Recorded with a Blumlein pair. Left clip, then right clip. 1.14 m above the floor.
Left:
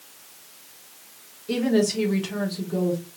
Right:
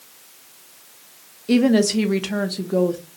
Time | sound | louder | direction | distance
1.5 | a woman speaking | right 5 dB | 20° right | 0.9 m